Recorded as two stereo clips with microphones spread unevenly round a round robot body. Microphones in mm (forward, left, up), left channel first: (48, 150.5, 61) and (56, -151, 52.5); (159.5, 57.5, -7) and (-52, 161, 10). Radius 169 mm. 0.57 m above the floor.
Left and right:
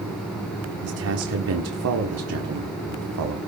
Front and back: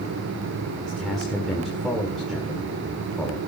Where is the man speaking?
115° right, 1.5 m.